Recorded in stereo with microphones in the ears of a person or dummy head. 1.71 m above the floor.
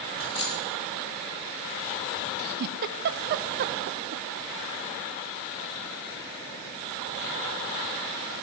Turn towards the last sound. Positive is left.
turn(degrees=-50)  # may be behind; listen again after turning